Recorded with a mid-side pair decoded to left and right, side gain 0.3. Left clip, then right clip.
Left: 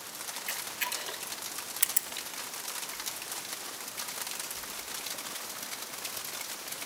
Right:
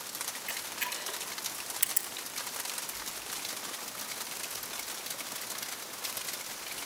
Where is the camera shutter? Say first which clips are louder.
Left 2 dB; 20° left, 3 m.